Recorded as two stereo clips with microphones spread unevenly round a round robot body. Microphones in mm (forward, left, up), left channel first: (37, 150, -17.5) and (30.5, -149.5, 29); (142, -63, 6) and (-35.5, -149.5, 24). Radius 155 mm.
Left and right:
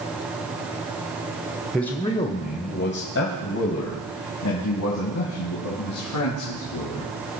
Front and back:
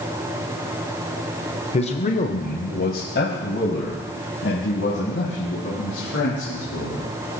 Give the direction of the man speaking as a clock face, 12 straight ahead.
12 o'clock.